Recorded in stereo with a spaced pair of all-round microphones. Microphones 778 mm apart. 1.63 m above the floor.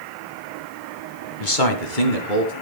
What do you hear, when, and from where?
1.4 s a man speaking: 75° left (ahead or behind), 1.8 m; by 2.5 s 80° left, 3 m